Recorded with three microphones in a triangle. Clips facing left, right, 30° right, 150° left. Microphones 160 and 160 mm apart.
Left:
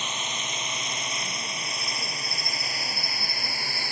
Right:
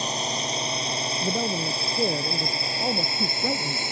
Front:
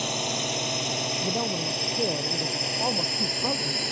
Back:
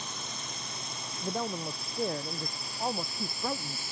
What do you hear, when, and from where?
0.0 s a drone: 35° right; by 3.9 s 25° right
1.2 s a man speaking: 105° right